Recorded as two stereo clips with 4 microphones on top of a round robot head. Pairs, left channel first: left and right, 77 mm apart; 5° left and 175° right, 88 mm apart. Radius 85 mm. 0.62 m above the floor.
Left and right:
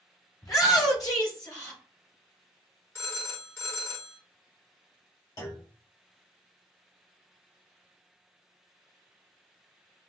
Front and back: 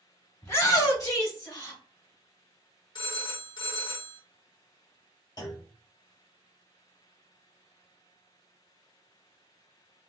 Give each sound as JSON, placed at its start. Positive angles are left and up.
{"t": 0.4, "sound": "a shout", "azimuth_deg": 60, "distance_m": 2.0}
{"t": 3.0, "sound": "a phone ringing", "azimuth_deg": 35, "distance_m": 1.6}
{"t": 5.4, "sound": "a clunk", "azimuth_deg": 50, "distance_m": 2.5}